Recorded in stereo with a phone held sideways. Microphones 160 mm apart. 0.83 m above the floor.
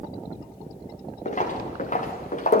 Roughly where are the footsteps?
Left.